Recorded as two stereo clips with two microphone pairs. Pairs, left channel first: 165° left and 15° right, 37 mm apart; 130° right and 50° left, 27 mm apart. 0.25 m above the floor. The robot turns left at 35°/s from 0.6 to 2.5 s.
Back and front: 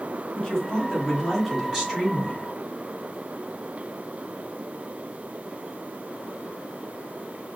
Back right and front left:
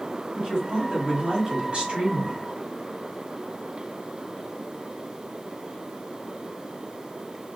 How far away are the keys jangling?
I don't hear keys jangling.